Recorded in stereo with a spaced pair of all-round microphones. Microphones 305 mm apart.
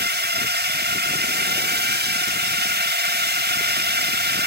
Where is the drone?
35° right (ahead or behind).